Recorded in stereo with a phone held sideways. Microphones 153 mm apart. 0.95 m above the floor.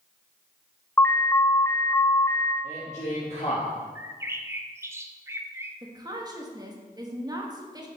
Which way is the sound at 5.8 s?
25° right (ahead or behind).